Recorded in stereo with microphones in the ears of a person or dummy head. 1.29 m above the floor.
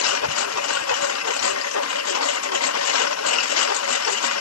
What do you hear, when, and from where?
0.0 s a lawn mower: 75° left (ahead or behind)